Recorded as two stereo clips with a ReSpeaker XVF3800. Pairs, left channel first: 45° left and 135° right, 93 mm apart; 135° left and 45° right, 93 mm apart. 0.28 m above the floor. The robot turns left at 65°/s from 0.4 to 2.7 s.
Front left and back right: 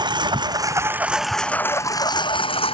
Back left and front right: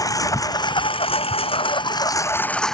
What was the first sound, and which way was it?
A lawn mower, 175° right.